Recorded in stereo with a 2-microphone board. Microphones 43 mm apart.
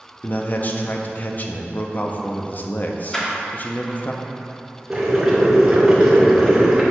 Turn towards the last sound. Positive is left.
turn(degrees=-10)  # may be behind; listen again after turning